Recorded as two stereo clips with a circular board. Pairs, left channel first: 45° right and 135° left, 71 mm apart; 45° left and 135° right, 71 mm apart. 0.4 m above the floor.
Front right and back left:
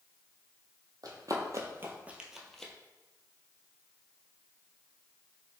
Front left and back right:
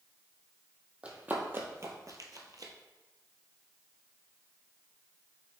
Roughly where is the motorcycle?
No motorcycle in this recording.